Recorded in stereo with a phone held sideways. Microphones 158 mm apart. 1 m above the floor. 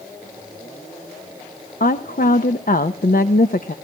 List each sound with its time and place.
1.8 s a woman speaking: 65° left (ahead or behind), 0.7 m